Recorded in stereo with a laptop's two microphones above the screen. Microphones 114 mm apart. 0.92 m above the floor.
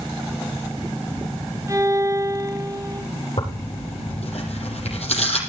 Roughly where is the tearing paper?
Left.